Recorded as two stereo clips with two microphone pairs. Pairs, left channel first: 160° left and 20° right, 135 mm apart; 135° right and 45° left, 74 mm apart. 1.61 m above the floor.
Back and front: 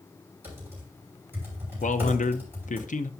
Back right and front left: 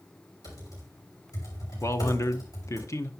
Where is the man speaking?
175° left, 0.7 m.